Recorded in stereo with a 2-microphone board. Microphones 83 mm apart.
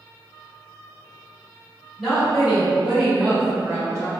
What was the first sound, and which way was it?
A woman speaking, 10° right (ahead or behind).